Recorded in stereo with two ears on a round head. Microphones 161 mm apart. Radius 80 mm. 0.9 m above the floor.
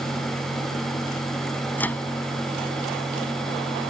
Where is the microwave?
10° left (ahead or behind).